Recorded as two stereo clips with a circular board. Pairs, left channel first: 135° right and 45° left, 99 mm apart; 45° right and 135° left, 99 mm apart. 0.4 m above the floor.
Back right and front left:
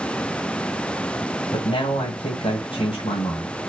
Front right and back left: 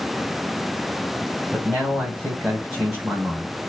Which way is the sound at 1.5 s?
145° right.